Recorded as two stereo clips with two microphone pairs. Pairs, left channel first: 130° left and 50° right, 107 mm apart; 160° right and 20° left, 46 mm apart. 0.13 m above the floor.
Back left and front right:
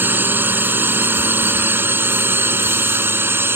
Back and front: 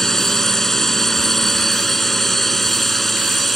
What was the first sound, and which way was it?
A drone, 90° right.